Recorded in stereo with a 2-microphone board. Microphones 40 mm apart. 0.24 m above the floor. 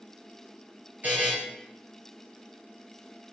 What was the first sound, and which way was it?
A buzzer, 40° right (ahead or behind).